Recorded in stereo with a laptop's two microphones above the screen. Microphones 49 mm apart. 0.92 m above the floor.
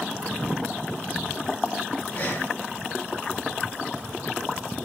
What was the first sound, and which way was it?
Breathing, 45° left (ahead or behind).